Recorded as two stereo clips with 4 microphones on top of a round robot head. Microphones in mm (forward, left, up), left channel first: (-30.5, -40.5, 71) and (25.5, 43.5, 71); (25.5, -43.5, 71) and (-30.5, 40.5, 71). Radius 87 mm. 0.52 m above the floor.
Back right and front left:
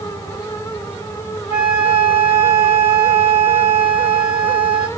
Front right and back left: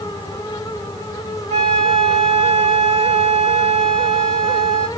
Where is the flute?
125° left, 2.5 m.